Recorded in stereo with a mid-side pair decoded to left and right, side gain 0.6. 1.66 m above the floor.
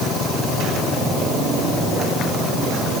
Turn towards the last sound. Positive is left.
No sound to turn to.